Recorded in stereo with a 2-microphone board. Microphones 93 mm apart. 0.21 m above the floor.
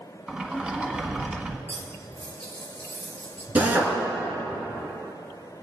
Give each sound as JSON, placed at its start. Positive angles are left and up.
{"t": 0.3, "sound": "a sliding door", "side_deg": -5, "distance_m": 1.1}
{"t": 1.7, "sound": "cutlery clinking", "side_deg": 20, "distance_m": 2.5}
{"t": 3.5, "sound": "a drill", "side_deg": -20, "distance_m": 2.5}